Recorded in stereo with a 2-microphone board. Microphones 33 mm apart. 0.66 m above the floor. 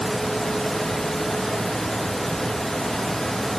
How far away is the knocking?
I don't hear knocking.